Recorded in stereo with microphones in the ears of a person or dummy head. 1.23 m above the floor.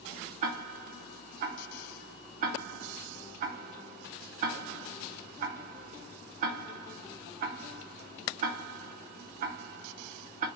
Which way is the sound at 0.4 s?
50° right (ahead or behind).